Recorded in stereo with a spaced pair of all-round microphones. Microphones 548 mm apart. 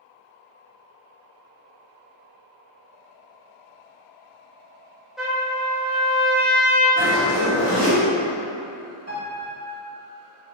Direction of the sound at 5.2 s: Centre (ahead or behind).